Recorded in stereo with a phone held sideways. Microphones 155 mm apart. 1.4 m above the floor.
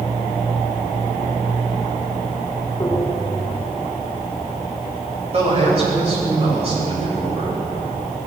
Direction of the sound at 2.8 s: 15° left (ahead or behind).